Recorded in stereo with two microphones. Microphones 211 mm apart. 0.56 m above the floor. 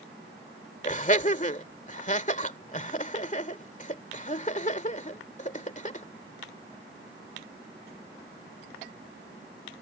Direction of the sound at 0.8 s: 35° left (ahead or behind).